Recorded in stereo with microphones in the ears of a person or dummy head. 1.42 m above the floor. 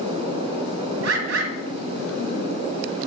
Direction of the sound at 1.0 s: 80° right.